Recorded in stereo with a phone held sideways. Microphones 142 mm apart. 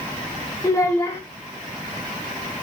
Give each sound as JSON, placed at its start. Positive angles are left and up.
{"t": 0.6, "sound": "a child speaking", "side_deg": 20, "distance_m": 2.5}